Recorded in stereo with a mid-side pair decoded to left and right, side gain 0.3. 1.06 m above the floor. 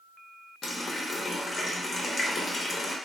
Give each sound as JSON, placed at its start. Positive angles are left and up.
{"t": 0.6, "sound": "a running tap", "azimuth_deg": 55, "distance_m": 0.8}